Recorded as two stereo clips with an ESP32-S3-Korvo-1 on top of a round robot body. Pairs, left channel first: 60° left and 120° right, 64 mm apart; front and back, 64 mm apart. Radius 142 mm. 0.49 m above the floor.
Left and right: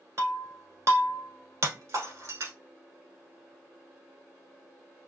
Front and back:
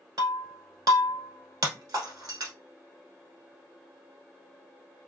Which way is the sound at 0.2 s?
165° right.